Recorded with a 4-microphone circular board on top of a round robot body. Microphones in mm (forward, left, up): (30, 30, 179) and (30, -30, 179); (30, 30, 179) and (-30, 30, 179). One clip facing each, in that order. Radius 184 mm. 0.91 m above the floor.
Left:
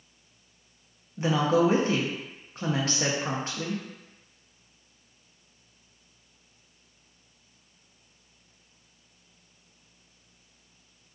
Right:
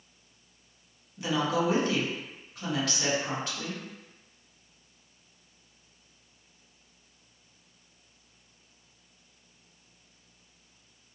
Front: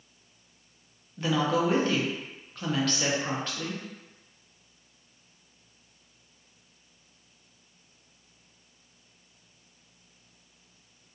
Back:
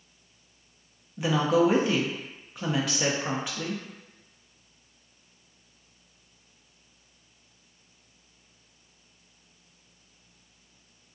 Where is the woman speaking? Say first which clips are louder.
Left 5 dB, back 3 dB; 110° left, 0.7 m.